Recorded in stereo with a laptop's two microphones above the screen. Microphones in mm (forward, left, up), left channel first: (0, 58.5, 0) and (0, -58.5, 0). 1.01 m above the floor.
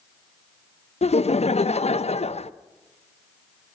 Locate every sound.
1.0 s laughter: 65° left (ahead or behind), 0.6 m